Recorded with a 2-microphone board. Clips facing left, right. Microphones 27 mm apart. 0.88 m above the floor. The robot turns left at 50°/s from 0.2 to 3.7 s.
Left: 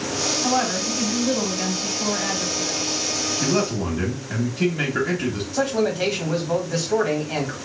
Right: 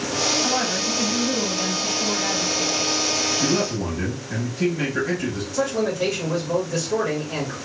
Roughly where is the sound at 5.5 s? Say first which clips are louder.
Left 1 dB; left.